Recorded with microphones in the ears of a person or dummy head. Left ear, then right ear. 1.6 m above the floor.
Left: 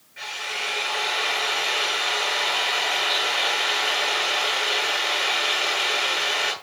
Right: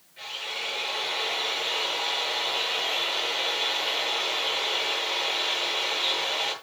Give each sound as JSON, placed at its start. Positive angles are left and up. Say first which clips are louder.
{"t": 0.2, "sound": "a drill", "louder": "left 4 dB", "side_deg": 40, "distance_m": 9.5}